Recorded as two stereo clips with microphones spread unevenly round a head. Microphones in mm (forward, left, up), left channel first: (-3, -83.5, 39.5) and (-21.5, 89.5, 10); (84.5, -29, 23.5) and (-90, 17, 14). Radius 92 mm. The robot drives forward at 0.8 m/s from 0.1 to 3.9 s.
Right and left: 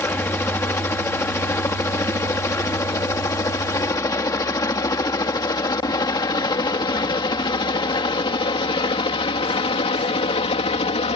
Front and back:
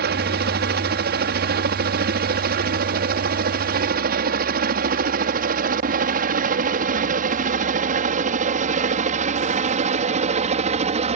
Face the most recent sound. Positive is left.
turn(degrees=-140)